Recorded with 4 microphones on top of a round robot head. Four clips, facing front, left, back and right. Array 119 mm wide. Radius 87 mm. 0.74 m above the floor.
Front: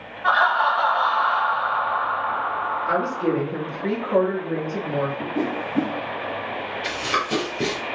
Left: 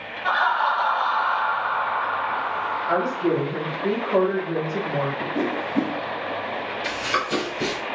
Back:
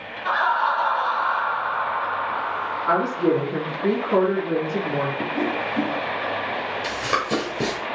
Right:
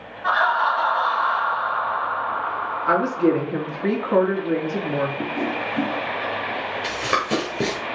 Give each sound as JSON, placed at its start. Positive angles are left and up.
{"t": 0.2, "sound": "laughter", "azimuth_deg": -45, "distance_m": 1.7}
{"t": 2.9, "sound": "a woman speaking", "azimuth_deg": -95, "distance_m": 2.0}
{"t": 5.3, "sound": "a whoosh", "azimuth_deg": 40, "distance_m": 0.5}
{"t": 6.8, "sound": "running footsteps", "azimuth_deg": -115, "distance_m": 0.9}